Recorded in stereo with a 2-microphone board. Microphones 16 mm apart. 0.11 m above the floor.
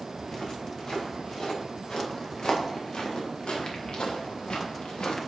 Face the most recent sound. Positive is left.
turn(degrees=85)